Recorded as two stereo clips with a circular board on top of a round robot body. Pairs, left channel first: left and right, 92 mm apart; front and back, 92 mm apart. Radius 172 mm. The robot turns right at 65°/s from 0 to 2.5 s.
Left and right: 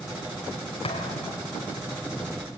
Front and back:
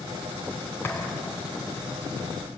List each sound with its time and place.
0.8 s a thud: 70° left, 3 m; by 1.4 s 105° left, 3 m